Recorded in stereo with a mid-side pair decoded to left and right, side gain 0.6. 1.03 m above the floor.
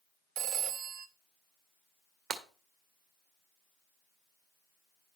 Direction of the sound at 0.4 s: 70° right.